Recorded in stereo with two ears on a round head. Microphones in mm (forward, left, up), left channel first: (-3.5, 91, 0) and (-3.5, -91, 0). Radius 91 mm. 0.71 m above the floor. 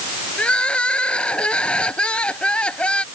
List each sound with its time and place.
0.4 s crying: 5° left (ahead or behind)